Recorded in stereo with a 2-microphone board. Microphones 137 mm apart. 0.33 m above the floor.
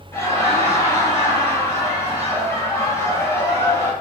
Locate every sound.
0.1 s laughter: 20° left (ahead or behind), 1.1 m